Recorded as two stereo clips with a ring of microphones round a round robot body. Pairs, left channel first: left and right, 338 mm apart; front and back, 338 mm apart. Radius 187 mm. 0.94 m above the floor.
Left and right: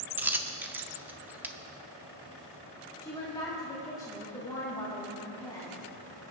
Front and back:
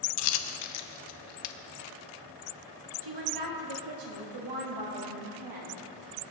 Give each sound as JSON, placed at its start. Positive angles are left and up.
{"t": 0.2, "sound": "a dropped coin", "azimuth_deg": -5, "distance_m": 0.7}
{"t": 3.0, "sound": "a woman speaking", "azimuth_deg": 170, "distance_m": 2.5}